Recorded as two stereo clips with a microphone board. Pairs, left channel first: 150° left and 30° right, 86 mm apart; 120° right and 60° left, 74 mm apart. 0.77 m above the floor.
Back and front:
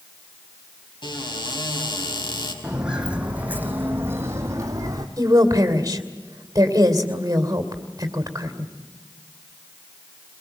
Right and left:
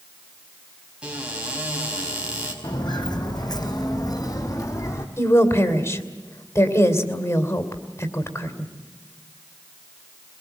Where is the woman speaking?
75° right, 2.5 m.